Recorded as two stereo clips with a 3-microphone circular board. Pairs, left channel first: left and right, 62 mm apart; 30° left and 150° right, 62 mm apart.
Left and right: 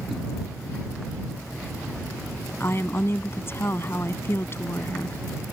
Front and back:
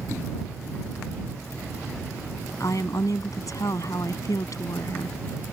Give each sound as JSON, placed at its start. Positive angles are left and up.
{"t": 2.6, "sound": "a woman speaking", "azimuth_deg": 45}